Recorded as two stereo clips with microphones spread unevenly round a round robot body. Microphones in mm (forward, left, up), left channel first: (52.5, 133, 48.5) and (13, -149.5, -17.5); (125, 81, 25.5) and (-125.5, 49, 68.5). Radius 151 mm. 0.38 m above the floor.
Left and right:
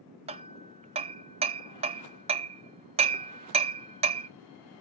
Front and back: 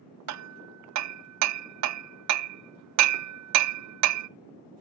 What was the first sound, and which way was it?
Hammering, 160° right.